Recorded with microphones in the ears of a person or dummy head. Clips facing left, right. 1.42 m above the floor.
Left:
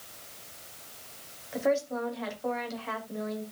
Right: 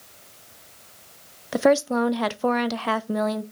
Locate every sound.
1.5 s a woman speaking: 75° right (ahead or behind), 0.7 m